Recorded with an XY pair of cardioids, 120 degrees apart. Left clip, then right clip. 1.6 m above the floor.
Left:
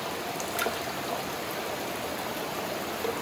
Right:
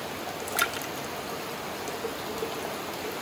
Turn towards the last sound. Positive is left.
turn(degrees=-35)